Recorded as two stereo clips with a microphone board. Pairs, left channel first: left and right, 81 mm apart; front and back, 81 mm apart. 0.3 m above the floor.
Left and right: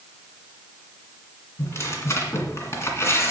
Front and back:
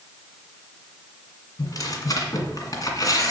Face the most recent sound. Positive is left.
turn(degrees=35)